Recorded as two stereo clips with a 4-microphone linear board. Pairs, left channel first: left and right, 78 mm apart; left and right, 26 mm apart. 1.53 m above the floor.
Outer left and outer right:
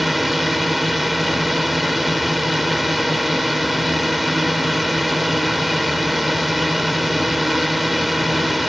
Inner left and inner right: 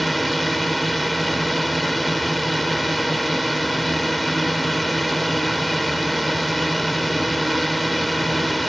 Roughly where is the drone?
Centre.